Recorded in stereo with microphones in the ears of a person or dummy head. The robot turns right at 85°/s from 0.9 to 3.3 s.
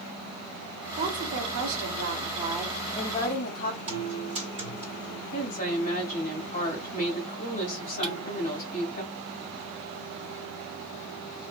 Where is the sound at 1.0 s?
145° right, 0.9 m; by 3.8 s 50° left, 0.9 m.